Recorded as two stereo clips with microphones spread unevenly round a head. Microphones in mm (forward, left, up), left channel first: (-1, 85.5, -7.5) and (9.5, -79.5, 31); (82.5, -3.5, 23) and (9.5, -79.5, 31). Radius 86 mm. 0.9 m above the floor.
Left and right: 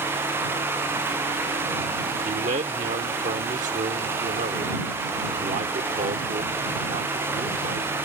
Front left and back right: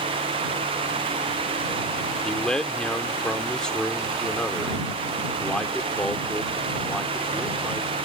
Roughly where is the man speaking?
Ahead right.